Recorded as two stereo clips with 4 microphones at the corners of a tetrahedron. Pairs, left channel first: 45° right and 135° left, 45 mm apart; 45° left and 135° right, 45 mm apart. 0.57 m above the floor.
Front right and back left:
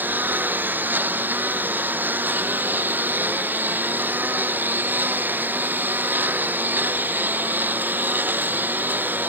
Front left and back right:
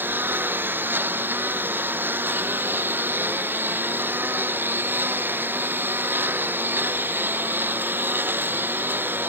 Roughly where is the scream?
No scream in this recording.